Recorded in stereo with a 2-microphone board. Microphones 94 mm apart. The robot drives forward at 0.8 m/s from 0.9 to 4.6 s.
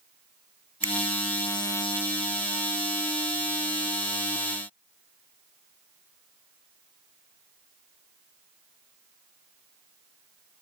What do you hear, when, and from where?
0.8 s a finger snap: 75° right (ahead or behind)